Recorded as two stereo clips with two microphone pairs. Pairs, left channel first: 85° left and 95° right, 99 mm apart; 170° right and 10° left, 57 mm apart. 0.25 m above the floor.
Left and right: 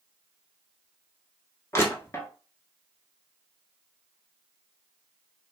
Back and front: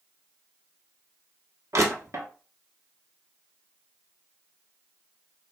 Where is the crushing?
25° left, 0.9 m.